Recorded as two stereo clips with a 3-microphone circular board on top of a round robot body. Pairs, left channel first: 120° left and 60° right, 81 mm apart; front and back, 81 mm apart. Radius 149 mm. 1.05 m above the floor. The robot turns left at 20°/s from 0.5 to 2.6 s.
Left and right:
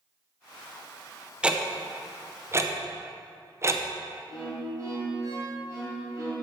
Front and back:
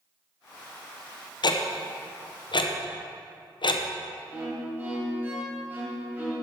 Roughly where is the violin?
Behind right.